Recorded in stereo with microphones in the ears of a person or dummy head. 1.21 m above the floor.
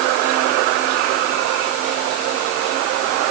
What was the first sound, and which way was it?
Only background noise.